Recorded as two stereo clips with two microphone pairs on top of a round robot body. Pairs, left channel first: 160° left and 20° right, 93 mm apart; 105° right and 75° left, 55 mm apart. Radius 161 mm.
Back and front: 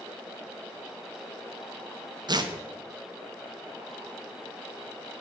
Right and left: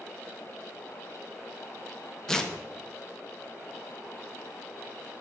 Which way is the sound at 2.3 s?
20° right.